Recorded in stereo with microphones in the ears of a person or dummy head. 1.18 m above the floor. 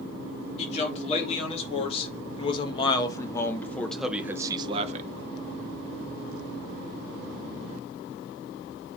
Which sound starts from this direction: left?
A man speaking, at 0.6 s.